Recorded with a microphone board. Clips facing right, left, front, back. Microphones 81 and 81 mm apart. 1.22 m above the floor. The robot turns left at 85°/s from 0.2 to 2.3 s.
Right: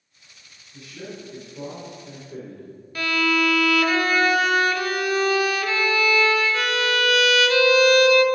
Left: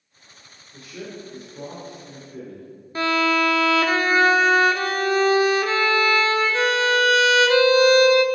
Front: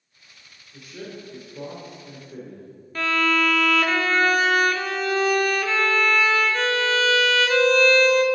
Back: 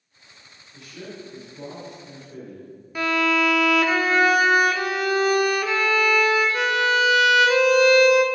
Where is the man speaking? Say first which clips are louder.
Left 1 dB, front 1 dB; 75° left, 2.5 m; by 2.7 s 55° right, 2.5 m.